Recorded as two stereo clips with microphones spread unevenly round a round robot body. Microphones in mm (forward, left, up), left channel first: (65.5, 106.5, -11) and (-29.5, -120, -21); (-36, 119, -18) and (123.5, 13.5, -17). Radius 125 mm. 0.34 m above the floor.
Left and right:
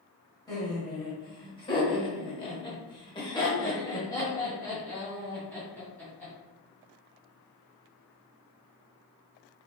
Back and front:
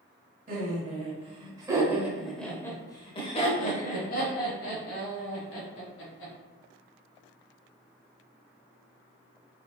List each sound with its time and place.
0.5 s laughter: 5° right, 1.5 m; by 6.3 s 150° left, 2.5 m